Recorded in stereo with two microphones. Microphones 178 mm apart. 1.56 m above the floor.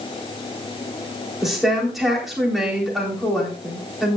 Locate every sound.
1.4 s a woman speaking: centre (ahead or behind), 4 m